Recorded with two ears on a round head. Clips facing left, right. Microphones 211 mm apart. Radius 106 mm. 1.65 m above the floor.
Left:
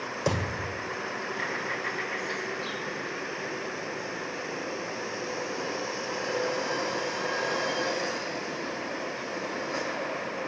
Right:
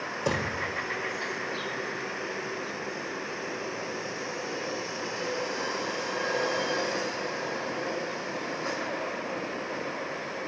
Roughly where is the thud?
Centre.